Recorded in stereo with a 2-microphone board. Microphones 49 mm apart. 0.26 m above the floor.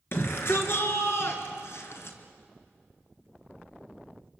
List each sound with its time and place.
0.1 s a shout: 50° left (ahead or behind), 3.5 m; by 2.2 s 60° left (ahead or behind), 3 m